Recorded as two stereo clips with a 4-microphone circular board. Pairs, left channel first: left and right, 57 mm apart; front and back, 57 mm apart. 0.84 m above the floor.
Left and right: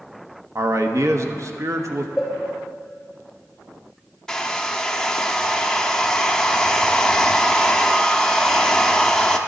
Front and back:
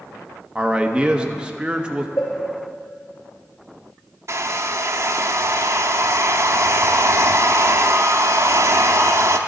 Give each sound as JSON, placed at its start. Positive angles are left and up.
{"t": 0.6, "sound": "a man speaking", "azimuth_deg": -110, "distance_m": 0.7}
{"t": 2.2, "sound": "a cowbell", "azimuth_deg": -5, "distance_m": 2.5}
{"t": 4.3, "sound": "a hair dryer", "azimuth_deg": 165, "distance_m": 0.5}